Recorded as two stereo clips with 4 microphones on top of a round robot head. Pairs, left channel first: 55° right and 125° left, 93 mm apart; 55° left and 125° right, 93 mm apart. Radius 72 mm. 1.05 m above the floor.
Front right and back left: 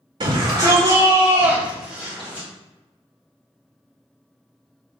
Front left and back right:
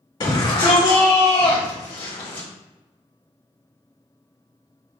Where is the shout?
95° left, 1.9 m; by 2.5 s 15° left, 1.4 m.